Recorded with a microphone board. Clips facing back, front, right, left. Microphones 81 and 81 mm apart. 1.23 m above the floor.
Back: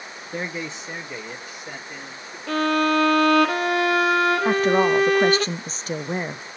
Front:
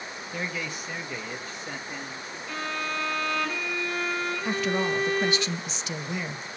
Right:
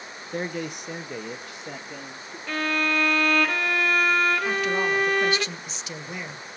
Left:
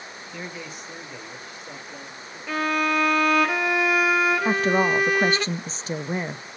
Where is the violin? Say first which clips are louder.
Back 13 dB, left 2 dB; 170° left, 0.8 m.